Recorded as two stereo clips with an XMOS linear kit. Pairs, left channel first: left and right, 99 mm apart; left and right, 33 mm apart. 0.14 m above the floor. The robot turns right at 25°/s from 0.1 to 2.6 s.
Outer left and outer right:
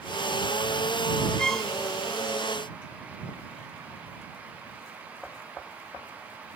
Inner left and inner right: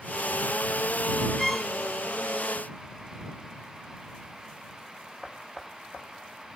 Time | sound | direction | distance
1.4 | a violin | 5° left (ahead or behind) | ?